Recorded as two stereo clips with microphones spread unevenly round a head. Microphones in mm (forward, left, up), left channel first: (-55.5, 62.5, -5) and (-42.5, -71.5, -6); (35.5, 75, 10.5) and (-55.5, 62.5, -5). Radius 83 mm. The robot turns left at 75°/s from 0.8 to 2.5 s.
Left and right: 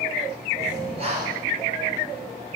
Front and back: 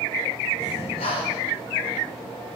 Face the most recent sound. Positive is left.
turn(degrees=-145)